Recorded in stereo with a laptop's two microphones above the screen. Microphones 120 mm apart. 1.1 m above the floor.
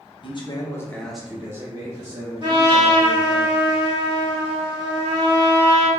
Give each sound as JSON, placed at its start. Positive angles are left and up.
{"t": 0.2, "sound": "a man speaking", "side_deg": 45, "distance_m": 0.7}
{"t": 2.4, "sound": "a trumpet", "side_deg": -40, "distance_m": 1.0}